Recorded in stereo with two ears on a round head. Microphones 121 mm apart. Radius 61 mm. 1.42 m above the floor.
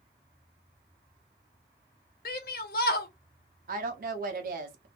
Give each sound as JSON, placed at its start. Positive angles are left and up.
{"t": 2.2, "sound": "a shout", "side_deg": 75, "distance_m": 0.8}
{"t": 3.7, "sound": "a woman speaking", "side_deg": -65, "distance_m": 0.9}